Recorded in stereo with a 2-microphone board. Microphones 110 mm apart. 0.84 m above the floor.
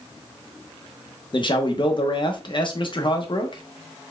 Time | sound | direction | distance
1.3 | a man speaking | 45° left (ahead or behind) | 0.8 m